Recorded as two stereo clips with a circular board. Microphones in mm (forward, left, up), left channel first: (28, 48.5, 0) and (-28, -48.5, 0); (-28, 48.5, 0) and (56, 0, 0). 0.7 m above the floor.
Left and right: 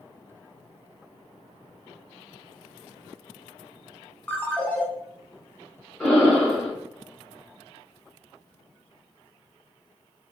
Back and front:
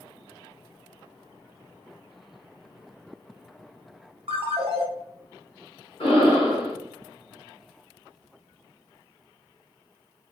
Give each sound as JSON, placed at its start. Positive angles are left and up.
{"t": 4.3, "sound": "a ringtone", "azimuth_deg": -15, "distance_m": 0.6}
{"t": 6.0, "sound": "breathing", "azimuth_deg": 140, "distance_m": 1.7}